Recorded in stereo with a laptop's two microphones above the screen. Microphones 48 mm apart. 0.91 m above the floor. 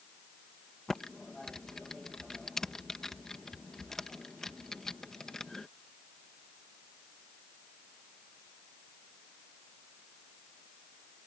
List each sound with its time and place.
0.9 s typing on a keyboard: 10° left (ahead or behind)